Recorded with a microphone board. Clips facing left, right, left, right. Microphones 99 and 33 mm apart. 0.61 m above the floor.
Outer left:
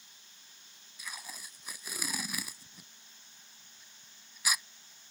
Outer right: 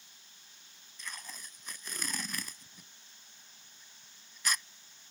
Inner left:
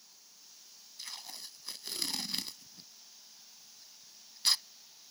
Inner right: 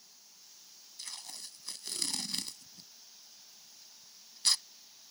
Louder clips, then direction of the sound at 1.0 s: Even, inner left 1 dB; 10° left (ahead or behind).